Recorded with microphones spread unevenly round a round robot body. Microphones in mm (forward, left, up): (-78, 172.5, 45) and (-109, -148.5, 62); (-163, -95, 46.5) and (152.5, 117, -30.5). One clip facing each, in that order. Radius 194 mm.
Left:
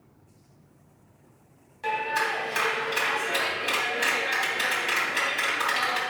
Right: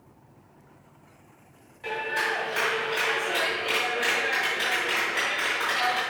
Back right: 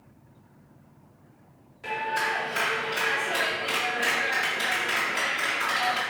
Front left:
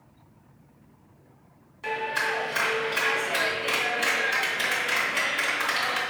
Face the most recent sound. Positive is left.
turn(degrees=100)